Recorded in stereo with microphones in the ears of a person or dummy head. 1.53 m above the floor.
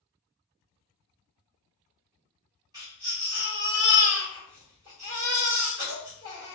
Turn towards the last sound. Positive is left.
turn(degrees=-20)  # may be behind; listen again after turning